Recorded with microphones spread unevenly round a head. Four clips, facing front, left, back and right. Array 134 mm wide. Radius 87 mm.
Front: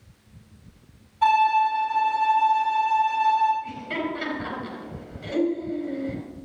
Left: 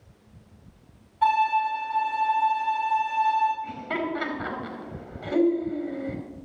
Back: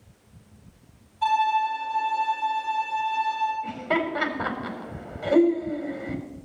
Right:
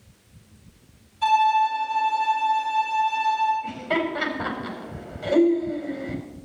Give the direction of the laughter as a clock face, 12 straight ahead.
6 o'clock.